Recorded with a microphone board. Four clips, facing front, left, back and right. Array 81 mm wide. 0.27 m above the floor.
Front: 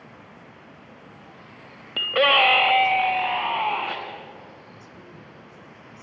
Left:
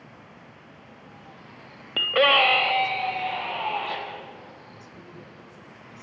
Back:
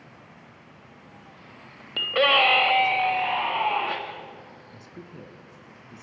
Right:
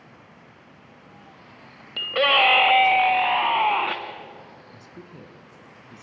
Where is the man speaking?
135° right, 3 m.